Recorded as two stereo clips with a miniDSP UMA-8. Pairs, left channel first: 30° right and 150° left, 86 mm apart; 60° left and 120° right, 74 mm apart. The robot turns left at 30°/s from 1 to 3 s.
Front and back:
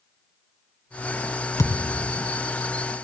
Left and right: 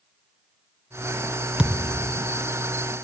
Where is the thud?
45° right, 2.0 m; by 2.2 s 65° right, 2.0 m.